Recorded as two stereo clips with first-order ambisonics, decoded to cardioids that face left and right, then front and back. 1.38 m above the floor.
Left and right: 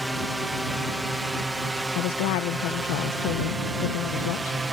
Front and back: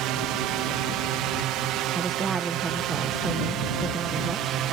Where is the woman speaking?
110° left.